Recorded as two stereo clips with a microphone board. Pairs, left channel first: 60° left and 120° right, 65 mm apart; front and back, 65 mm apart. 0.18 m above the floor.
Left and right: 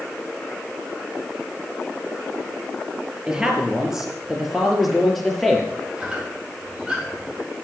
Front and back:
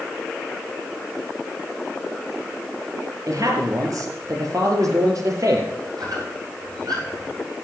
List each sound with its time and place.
3.3 s a man speaking: 165° left, 3.5 m; by 5.7 s 150° left, 4 m
6.0 s a squeak: 165° left, 8 m